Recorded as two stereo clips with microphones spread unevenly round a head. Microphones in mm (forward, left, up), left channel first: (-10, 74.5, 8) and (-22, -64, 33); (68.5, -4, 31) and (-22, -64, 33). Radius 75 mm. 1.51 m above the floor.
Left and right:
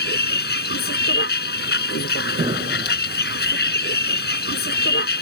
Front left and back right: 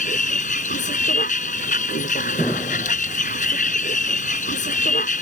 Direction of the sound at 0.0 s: 65° left.